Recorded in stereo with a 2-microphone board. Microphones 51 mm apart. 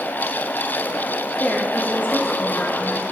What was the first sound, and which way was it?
A woman speaking, 40° left (ahead or behind).